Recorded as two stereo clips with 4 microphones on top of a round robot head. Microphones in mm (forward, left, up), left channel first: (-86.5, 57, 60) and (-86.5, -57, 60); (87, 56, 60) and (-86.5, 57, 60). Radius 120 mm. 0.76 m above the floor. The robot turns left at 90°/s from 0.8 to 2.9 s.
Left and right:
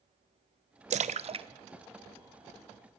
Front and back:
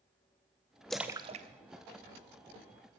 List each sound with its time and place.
0.9 s a splash: 85° right, 0.6 m; by 1.5 s 135° right, 0.6 m